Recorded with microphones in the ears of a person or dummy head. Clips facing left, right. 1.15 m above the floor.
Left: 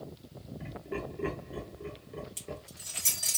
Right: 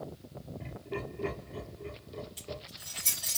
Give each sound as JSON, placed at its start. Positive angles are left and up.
{"t": 0.6, "sound": "laughter", "side_deg": 20, "distance_m": 2.5}
{"t": 2.4, "sound": "keys jangling", "side_deg": 40, "distance_m": 2.0}